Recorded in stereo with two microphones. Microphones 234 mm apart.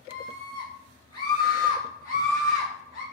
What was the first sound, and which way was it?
A scream, 20° left (ahead or behind).